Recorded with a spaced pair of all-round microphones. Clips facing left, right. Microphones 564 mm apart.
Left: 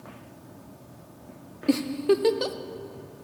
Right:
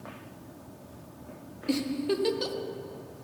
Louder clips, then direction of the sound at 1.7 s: Left 6 dB; 75° left (ahead or behind).